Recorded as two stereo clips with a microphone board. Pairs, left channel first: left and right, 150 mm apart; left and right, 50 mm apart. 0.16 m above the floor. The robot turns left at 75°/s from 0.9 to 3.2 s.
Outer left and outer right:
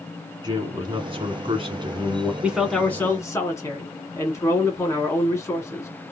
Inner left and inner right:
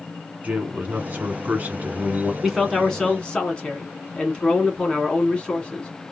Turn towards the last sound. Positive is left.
turn(degrees=140)